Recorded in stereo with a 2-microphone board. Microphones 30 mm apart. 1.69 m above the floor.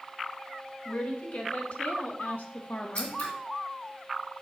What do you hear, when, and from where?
0.8 s a woman speaking: 60° left (ahead or behind), 3 m; by 3.2 s 40° left (ahead or behind), 1.3 m
3.0 s scissors: 55° left (ahead or behind), 2.5 m